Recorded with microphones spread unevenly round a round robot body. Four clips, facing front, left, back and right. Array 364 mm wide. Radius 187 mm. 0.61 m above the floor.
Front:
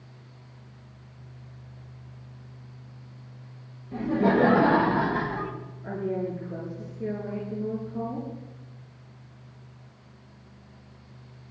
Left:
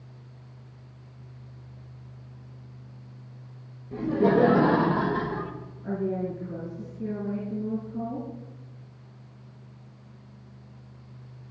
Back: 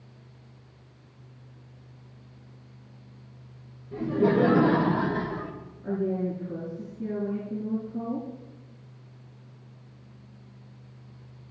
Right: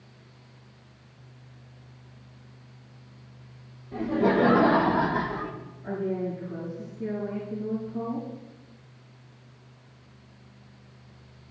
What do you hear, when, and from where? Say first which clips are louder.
3.9 s laughter: left 1 dB, even; 120° left, 3 m; by 5.5 s 140° left, 3 m
5.8 s a woman speaking: even, back 2 dB; 135° left, 7.5 m